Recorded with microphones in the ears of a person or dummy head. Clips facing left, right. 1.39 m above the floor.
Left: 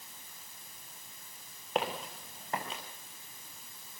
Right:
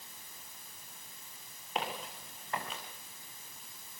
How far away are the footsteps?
About 5.5 m.